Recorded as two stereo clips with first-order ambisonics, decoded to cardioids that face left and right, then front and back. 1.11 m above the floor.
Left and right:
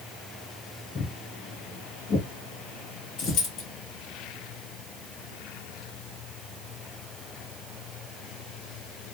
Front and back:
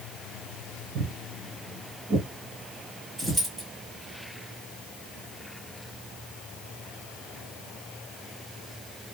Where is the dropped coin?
105° left, 1.8 m.